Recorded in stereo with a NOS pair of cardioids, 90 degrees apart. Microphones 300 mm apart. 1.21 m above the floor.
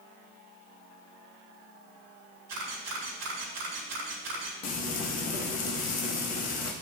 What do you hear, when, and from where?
2.5 s a camera shutter: 60° right, 3.5 m
4.6 s frying: 60° left, 1.4 m